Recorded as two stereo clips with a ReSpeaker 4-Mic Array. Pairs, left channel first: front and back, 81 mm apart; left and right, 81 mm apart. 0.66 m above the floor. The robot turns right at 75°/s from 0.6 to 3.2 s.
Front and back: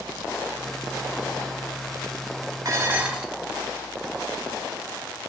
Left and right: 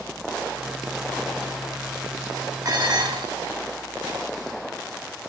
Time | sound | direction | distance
2.6 | dishes clattering | 140° right | 0.8 m